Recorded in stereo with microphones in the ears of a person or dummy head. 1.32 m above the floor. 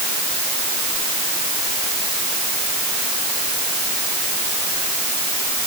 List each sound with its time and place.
Only background noise.